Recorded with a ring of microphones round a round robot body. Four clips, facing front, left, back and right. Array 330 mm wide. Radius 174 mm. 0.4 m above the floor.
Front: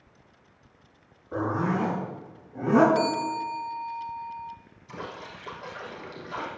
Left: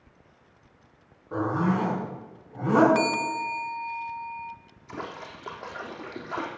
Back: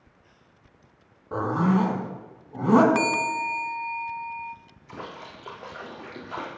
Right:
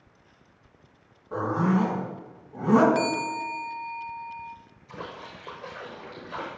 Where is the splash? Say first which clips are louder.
Left 2 dB, even; 120° left, 4 m.